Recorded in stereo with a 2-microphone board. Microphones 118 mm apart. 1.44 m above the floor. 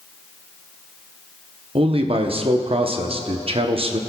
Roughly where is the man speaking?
Right.